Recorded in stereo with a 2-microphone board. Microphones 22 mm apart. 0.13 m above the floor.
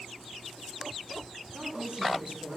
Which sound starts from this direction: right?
A woman speaking, at 1.5 s.